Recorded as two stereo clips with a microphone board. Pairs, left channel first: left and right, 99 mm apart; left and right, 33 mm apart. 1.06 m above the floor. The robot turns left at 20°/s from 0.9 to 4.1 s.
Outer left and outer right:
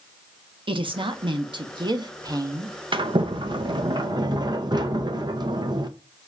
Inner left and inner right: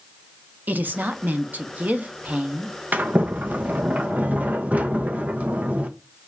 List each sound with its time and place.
0.7 s a woman speaking: 105° right, 0.7 m; by 2.8 s 140° right, 0.7 m
2.9 s a sliding door: 55° right (ahead or behind), 0.5 m; by 5.9 s 45° right (ahead or behind), 0.5 m